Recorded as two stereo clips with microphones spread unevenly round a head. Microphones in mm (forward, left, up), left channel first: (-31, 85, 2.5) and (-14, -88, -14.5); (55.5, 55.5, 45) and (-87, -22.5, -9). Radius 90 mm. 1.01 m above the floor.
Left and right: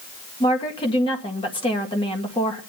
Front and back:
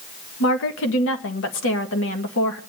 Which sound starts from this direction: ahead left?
A woman speaking, at 0.4 s.